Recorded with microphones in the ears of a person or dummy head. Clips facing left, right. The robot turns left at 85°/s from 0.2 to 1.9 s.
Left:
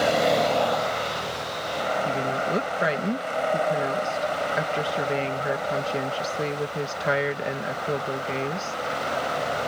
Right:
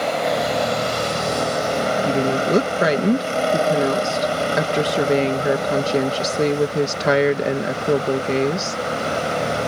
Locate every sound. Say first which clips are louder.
0.0 s a vehicle: even; 5° left; by 9.7 s 140° right
2.0 s a woman speaking: right 7 dB; 65° right (ahead or behind)